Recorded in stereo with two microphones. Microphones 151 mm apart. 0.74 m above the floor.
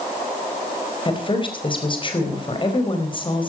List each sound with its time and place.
1.1 s a woman speaking: 35° left (ahead or behind), 4 m